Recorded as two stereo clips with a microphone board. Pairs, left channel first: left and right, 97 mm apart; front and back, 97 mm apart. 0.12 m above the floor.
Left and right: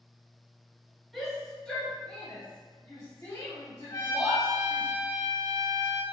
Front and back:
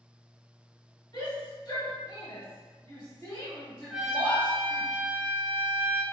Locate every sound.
1.1 s a shout: straight ahead, 1.8 m; by 4.8 s 75° left, 2.5 m
3.9 s a trumpet: 105° left, 0.7 m